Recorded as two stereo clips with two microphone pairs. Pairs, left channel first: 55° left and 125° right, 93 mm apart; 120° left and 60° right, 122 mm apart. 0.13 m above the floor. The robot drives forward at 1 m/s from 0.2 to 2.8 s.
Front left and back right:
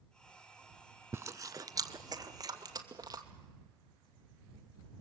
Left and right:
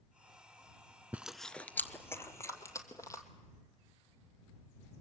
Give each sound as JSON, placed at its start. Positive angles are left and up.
{"t": 1.1, "sound": "chewing", "azimuth_deg": -115, "distance_m": 0.5}